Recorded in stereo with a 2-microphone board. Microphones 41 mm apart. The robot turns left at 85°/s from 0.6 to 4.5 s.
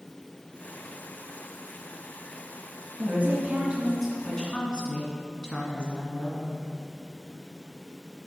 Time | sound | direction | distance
3.0 | a woman speaking | 85° right | 1.8 m